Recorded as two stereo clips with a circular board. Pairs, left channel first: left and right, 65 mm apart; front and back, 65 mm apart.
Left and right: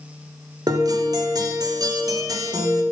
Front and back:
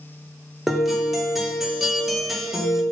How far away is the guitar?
About 2.5 m.